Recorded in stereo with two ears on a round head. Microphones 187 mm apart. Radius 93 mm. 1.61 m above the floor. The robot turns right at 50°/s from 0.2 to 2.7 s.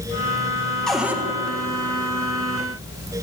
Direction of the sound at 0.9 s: 5° left (ahead or behind).